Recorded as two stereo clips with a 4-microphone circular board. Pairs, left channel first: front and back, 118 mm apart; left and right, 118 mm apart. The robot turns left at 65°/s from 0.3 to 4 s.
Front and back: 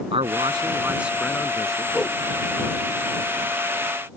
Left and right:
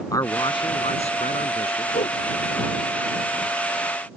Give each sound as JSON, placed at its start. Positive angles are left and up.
{"t": 0.1, "sound": "a man speaking", "azimuth_deg": 150}
{"t": 1.9, "sound": "a whoosh", "azimuth_deg": 90}